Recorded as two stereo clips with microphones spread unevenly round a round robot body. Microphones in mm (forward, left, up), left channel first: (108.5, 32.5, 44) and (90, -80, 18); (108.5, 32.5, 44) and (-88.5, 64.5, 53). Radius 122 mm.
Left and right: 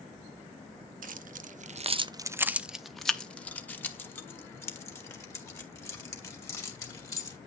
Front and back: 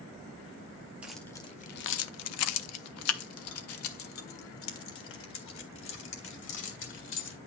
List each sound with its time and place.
1.0 s keys jangling: 105° right, 0.6 m; by 7.4 s 15° left, 3 m